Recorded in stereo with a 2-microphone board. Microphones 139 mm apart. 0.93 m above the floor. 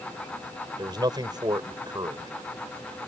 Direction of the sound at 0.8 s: 30° right (ahead or behind).